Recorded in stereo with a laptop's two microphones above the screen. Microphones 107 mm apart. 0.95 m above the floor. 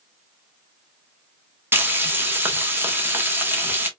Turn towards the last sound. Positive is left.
turn(degrees=-20)  # may be behind; listen again after turning